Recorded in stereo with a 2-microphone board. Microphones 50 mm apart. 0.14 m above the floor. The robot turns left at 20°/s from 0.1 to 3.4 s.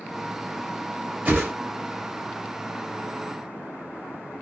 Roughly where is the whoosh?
Right.